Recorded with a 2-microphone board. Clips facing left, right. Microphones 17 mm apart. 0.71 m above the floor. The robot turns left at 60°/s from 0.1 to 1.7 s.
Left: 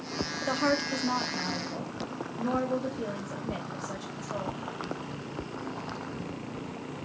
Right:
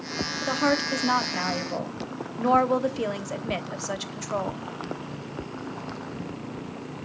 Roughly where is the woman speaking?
Ahead.